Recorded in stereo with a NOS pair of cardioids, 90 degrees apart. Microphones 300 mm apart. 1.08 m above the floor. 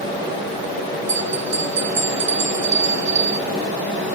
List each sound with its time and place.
1.1 s a bell: 40° right, 0.7 m